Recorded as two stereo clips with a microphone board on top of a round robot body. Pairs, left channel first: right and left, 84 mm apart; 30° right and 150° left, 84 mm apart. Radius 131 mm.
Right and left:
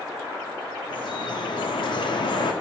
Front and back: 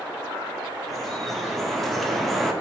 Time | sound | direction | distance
0.9 | dripping | 120° right | 0.6 m